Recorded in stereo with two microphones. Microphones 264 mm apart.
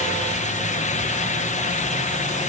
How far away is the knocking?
No knocking in this recording.